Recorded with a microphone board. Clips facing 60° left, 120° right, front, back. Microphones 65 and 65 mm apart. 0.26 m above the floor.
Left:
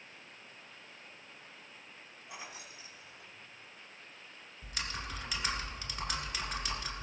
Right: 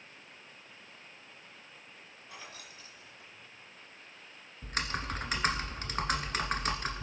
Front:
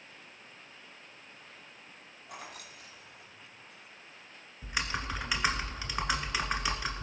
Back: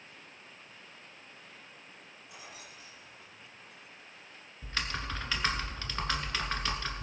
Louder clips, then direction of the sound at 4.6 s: Right 6 dB, front 2 dB; 75° right.